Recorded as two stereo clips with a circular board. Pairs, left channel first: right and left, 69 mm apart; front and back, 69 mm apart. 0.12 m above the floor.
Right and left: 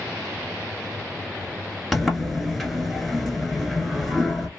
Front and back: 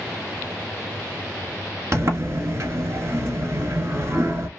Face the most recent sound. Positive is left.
turn(degrees=-175)